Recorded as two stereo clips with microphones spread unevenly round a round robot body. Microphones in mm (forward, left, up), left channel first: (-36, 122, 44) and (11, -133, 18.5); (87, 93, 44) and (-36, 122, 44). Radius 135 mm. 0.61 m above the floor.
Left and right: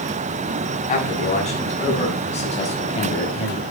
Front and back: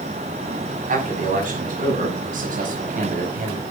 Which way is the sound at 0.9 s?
165° left.